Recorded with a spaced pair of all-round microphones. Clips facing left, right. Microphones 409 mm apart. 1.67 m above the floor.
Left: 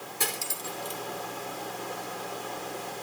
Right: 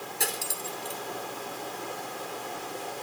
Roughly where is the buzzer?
I don't hear a buzzer.